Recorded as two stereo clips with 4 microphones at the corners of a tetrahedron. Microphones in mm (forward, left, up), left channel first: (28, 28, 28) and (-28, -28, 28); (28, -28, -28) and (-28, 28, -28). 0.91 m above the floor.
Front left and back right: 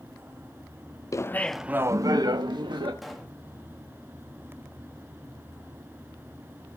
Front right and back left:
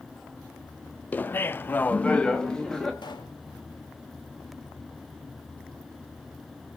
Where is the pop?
45° right, 1.6 m.